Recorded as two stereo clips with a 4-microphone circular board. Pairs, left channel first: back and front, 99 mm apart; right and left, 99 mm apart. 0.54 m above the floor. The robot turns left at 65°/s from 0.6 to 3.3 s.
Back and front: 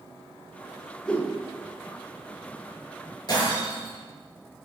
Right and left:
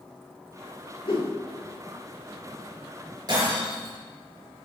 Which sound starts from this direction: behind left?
Breaking glass, at 3.3 s.